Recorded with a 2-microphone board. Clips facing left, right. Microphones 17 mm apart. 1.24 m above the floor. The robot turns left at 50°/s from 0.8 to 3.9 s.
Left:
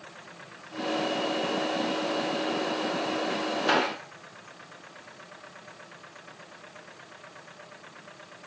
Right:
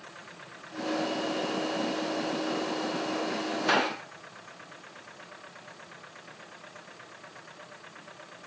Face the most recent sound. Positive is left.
turn(degrees=-10)  # may be behind; listen again after turning